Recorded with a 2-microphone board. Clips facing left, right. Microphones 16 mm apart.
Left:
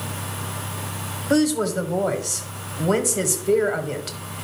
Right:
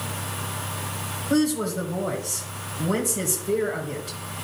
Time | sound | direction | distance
1.3 | a woman speaking | 45° left (ahead or behind) | 1.3 m